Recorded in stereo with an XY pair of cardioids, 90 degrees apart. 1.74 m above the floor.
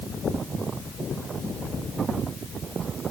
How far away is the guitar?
I don't hear a guitar.